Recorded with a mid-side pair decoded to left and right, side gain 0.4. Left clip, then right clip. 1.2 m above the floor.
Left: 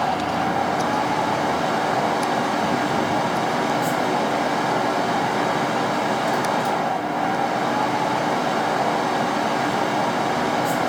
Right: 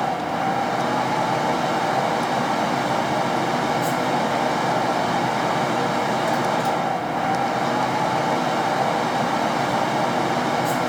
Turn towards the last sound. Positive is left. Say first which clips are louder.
# left 1 dB
turn(degrees=-10)